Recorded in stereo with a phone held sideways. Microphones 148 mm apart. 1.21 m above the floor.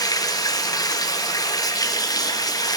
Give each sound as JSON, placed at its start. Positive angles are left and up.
{"t": 0.0, "sound": "running water", "side_deg": 25, "distance_m": 0.9}